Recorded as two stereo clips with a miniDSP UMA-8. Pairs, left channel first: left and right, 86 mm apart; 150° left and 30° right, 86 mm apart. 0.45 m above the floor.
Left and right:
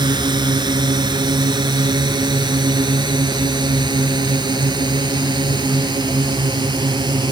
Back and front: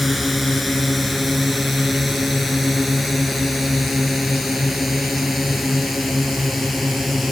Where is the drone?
120° right.